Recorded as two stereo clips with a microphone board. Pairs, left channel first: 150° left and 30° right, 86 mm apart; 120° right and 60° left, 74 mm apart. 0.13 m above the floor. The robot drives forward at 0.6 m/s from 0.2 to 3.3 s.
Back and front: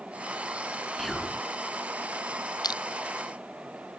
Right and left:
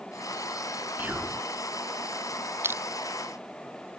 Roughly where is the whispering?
Ahead left.